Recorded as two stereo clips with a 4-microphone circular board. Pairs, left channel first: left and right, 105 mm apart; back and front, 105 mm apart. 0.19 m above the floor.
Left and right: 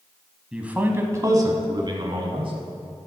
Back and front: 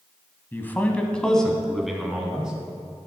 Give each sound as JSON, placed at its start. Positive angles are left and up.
{"t": 0.5, "sound": "a man speaking", "azimuth_deg": -160, "distance_m": 1.1}